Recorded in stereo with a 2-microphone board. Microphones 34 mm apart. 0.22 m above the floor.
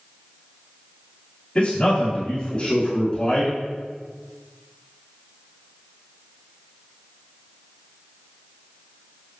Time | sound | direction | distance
1.6 | a man speaking | 30° left (ahead or behind) | 1.2 m